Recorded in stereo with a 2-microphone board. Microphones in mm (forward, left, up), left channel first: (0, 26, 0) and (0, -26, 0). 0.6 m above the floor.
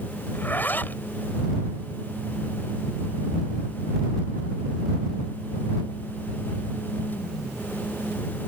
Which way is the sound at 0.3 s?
40° left (ahead or behind).